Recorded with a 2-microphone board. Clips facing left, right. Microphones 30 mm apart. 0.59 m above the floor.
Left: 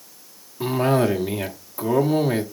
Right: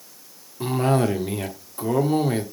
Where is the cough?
10° left (ahead or behind), 1.1 m.